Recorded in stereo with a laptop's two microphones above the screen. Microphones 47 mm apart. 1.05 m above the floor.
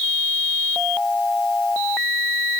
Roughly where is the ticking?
I don't hear ticking.